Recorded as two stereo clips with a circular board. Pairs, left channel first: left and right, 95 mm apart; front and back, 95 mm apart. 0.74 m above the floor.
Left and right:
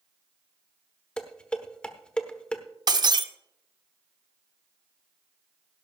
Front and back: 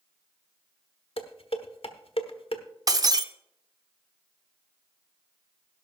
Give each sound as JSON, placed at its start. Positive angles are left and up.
{"t": 1.2, "sound": "dishes clattering", "azimuth_deg": 10, "distance_m": 1.1}
{"t": 2.9, "sound": "breaking glass", "azimuth_deg": -130, "distance_m": 0.7}